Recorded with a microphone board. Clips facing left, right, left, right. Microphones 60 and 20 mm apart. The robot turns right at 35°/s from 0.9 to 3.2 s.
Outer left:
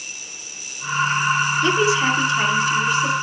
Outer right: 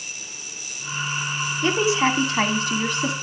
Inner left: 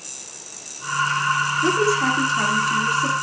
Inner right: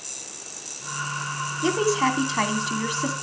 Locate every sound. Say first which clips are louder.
1.6 s a woman speaking: outer right 1 dB, even; 150° right, 2.5 m; by 3.1 s 100° right, 2.5 m